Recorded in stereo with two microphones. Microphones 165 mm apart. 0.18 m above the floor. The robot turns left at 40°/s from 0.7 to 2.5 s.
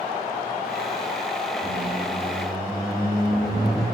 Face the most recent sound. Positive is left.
turn(degrees=-5)